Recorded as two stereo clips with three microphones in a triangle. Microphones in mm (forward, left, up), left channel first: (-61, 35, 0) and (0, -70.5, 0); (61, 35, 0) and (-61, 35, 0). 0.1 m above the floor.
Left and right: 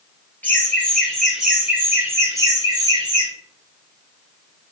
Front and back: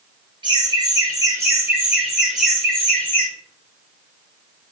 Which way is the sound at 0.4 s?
170° right.